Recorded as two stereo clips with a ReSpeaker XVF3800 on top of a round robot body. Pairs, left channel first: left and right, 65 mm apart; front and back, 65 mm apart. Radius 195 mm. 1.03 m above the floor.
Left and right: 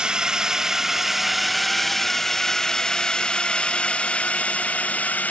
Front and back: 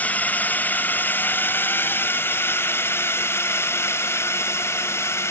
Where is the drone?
25° right; by 5.3 s 30° left.